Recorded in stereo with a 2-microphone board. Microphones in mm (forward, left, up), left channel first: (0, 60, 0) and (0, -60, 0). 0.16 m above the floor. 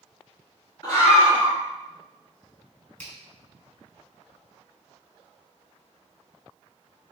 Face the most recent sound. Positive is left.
turn(degrees=15)  # may be behind; listen again after turning